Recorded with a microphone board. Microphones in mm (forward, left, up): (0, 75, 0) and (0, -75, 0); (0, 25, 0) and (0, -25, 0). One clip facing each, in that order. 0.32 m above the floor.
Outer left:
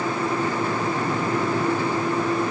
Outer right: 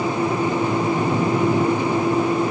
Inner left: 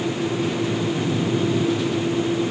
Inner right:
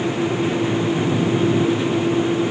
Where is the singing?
No singing in this recording.